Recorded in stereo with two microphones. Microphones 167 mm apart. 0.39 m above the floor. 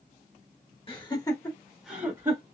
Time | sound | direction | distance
0.9 | laughter | 35° left (ahead or behind) | 1.3 m